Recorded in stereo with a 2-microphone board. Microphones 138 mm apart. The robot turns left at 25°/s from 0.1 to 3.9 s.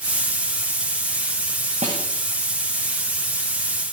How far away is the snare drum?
About 7 m.